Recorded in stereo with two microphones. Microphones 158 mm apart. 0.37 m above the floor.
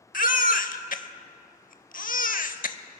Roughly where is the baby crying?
Left.